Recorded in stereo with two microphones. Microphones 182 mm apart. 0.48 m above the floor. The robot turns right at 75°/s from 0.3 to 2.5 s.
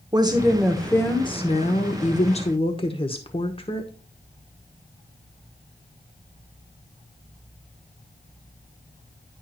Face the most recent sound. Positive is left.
turn(degrees=135)